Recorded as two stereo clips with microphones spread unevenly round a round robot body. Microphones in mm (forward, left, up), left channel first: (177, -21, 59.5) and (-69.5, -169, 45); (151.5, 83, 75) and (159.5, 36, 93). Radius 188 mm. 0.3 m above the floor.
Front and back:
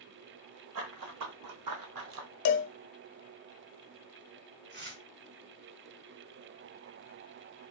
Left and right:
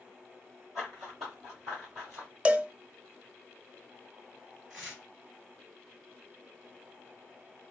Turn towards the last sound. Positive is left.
turn(degrees=-115)